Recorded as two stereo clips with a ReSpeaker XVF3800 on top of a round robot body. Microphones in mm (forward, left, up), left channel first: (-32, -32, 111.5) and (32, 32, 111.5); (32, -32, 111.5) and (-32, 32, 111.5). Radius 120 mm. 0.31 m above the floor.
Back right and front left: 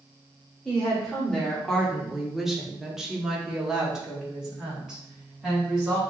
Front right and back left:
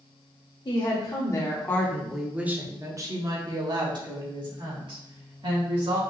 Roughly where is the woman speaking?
Ahead right.